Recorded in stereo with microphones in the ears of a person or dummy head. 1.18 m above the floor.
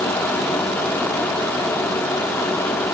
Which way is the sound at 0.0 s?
10° left (ahead or behind).